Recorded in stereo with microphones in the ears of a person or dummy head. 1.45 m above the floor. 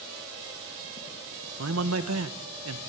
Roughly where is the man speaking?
Right.